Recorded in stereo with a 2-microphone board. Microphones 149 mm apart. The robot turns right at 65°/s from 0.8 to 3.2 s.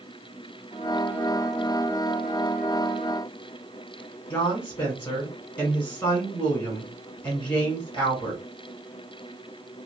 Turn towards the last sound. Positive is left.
turn(degrees=30)  # may be behind; listen again after turning